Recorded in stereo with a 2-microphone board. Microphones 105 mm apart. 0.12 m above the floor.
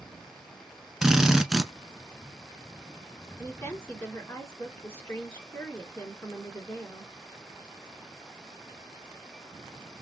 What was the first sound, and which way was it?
A drill, 5° right (ahead or behind).